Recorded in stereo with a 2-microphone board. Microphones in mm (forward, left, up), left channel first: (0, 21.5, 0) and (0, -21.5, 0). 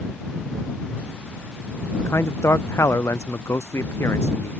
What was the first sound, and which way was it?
A man speaking, 80° left.